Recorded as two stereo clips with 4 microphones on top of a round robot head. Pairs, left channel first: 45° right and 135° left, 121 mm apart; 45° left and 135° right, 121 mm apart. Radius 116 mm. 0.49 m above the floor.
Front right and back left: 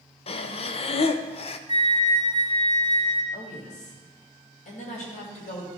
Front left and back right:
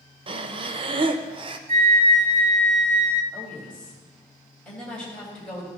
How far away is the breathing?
About 0.5 m.